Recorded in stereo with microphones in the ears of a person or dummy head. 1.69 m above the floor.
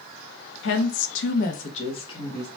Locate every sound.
0.6 s a woman speaking: 65° left (ahead or behind), 0.5 m; by 2.5 s 20° left (ahead or behind), 0.9 m